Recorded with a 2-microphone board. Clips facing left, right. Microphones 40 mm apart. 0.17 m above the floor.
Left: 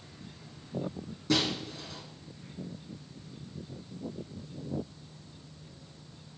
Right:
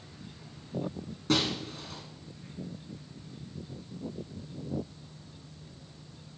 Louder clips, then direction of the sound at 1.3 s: Even; 55° right (ahead or behind).